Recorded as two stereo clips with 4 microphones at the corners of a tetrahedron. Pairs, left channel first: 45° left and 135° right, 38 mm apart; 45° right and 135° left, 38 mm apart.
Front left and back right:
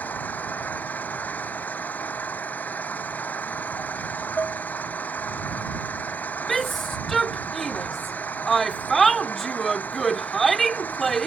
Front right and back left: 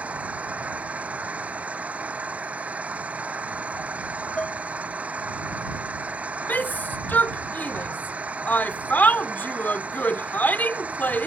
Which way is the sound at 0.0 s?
85° left.